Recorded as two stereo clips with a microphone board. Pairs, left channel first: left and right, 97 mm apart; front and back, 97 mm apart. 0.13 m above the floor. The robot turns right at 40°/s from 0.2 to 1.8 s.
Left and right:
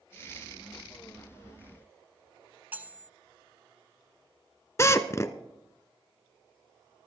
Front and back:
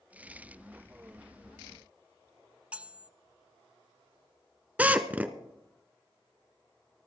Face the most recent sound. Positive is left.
turn(degrees=120)